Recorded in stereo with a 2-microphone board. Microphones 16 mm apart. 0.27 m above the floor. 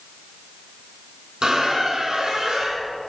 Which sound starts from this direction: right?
A squeak, at 1.4 s.